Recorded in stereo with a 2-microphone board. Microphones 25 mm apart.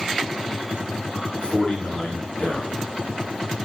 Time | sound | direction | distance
1.4 | a man speaking | 40° left (ahead or behind) | 3.5 m